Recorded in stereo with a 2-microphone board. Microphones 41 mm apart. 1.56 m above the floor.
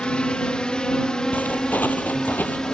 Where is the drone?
25° left (ahead or behind); by 2.8 s 15° left (ahead or behind).